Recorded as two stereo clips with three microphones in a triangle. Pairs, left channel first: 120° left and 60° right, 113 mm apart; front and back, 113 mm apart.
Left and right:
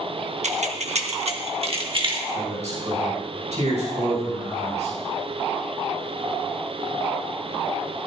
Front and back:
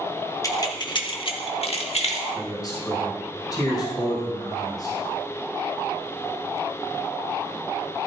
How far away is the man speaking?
About 6 m.